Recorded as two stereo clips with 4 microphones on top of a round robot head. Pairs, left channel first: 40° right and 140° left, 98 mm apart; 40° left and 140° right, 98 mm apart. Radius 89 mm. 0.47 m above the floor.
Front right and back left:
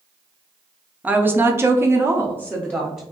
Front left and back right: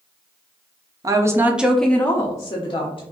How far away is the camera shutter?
No camera shutter in this recording.